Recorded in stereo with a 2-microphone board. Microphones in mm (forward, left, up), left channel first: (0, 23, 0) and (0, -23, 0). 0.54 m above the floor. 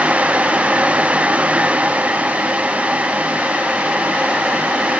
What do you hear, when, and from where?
Only background noise.